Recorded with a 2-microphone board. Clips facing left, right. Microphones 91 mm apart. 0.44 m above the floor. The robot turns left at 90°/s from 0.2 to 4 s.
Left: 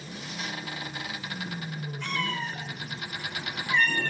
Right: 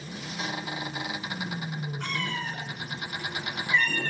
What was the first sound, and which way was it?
A cat meowing, 60° right.